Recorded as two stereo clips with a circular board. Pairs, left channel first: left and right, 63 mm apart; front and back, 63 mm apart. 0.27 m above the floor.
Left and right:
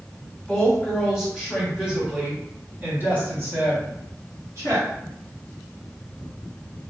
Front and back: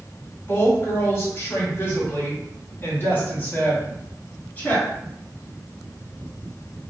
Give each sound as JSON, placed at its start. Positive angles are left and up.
{"t": 0.5, "sound": "a woman speaking", "azimuth_deg": 10, "distance_m": 1.8}